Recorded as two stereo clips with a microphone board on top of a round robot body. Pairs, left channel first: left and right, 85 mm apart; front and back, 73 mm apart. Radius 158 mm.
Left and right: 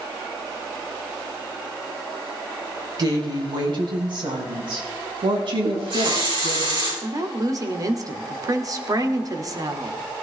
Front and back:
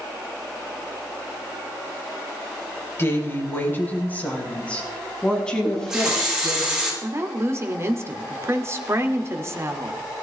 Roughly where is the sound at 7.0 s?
Behind right.